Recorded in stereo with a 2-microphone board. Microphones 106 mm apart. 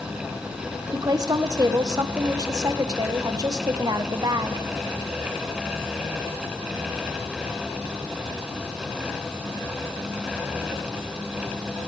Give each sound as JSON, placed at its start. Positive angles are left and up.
{"t": 0.9, "sound": "a woman speaking", "side_deg": -35, "distance_m": 1.0}